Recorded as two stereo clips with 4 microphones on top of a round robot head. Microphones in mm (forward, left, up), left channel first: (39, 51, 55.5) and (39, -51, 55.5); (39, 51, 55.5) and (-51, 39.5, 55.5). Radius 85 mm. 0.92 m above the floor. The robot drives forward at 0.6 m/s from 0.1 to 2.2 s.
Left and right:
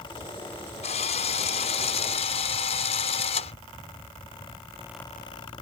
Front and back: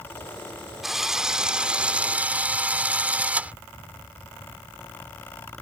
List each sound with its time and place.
0.8 s a drill: 100° left; by 3.5 s 115° left